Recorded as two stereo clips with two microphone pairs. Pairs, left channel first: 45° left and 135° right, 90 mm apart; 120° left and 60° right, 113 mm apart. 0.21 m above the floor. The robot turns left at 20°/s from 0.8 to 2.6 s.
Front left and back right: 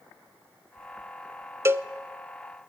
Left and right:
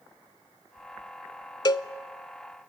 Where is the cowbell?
165° left, 0.5 m; by 1.9 s 160° left, 0.5 m.